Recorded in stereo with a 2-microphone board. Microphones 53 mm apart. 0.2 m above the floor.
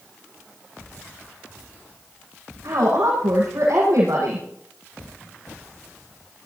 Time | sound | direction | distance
2.6 | a woman speaking | 75° right (ahead or behind) | 6.5 m